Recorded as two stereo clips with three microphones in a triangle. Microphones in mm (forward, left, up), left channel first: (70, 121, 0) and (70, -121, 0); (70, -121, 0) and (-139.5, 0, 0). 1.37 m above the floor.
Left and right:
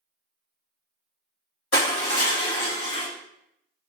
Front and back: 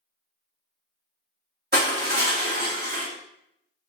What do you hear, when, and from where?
1.7 s crushing: 105° left, 1.5 m